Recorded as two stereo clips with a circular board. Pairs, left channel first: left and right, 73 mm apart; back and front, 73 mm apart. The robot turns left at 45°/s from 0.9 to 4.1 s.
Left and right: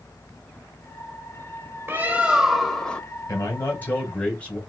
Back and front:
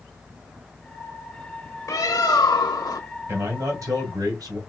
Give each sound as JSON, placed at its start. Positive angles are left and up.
{"t": 1.9, "sound": "a bird", "azimuth_deg": -145, "distance_m": 0.8}
{"t": 3.3, "sound": "a man speaking", "azimuth_deg": 55, "distance_m": 2.0}